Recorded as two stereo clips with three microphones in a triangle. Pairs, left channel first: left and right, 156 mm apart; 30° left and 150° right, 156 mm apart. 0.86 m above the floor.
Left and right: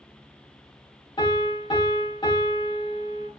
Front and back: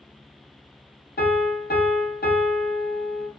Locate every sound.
1.2 s a piano: 30° left, 0.9 m